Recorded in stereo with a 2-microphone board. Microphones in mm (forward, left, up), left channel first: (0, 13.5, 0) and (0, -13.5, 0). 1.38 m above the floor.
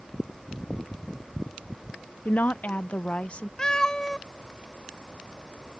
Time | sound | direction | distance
2.2 | a woman speaking | 80° left | ?
3.6 | a cat meowing | 25° left (ahead or behind) | ?